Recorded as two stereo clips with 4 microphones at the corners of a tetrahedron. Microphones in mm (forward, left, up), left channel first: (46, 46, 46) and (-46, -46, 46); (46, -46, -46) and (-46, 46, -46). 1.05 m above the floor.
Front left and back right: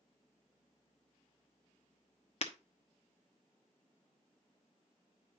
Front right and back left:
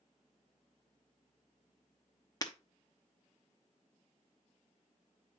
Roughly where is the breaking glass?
Ahead.